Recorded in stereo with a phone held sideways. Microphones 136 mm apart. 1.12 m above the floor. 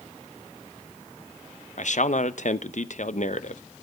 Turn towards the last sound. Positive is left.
turn(degrees=60)  # may be behind; listen again after turning